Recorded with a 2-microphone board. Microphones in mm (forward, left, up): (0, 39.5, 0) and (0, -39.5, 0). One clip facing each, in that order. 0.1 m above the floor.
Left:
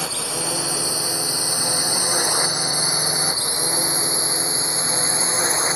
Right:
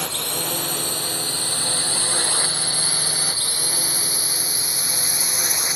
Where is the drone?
5° left (ahead or behind); by 5.8 s 30° left (ahead or behind).